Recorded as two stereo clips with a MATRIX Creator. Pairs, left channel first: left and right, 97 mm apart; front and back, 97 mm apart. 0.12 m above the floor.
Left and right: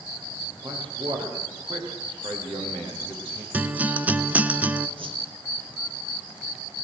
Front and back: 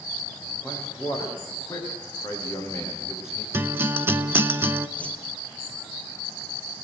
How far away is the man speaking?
About 9.5 m.